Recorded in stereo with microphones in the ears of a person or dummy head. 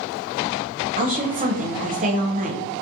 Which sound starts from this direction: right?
A woman speaking, at 1.0 s.